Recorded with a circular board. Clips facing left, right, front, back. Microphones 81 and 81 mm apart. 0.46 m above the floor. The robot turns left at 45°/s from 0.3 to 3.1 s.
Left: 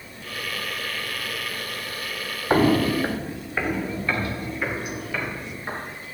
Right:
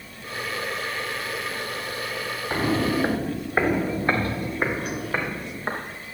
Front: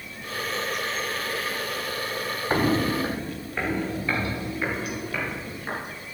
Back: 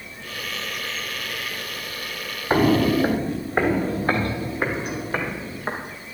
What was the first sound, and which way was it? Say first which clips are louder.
Footsteps: left 5 dB, back 6 dB; 115° left.